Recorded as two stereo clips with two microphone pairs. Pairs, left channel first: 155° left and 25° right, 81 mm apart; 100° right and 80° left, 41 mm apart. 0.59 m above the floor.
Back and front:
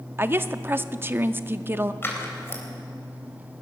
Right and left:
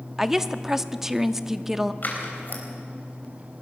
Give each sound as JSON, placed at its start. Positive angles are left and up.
{"t": 0.2, "sound": "a woman speaking", "azimuth_deg": 5, "distance_m": 0.6}
{"t": 2.0, "sound": "scissors", "azimuth_deg": -140, "distance_m": 3.5}